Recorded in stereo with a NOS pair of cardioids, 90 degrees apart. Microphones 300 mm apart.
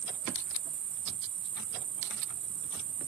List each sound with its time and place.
0.0 s an insect: 70° right